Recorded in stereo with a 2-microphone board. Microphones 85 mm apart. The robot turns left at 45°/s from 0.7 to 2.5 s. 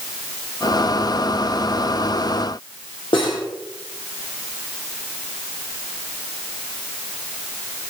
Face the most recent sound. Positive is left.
turn(degrees=85)